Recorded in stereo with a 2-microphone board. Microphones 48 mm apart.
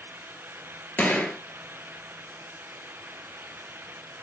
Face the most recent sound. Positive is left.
turn(degrees=35)  # may be behind; listen again after turning